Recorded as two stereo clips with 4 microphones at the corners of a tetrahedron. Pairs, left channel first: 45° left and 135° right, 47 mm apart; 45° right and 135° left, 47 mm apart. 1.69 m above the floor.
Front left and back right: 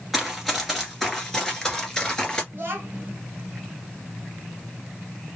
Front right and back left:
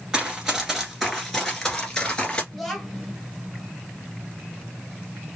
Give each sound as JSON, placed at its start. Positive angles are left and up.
{"t": 0.1, "sound": "running footsteps", "azimuth_deg": 150, "distance_m": 1.7}
{"t": 2.5, "sound": "a child speaking", "azimuth_deg": -135, "distance_m": 1.4}